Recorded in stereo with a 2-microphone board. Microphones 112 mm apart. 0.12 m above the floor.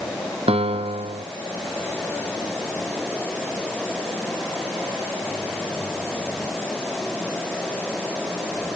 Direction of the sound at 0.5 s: 65° right (ahead or behind).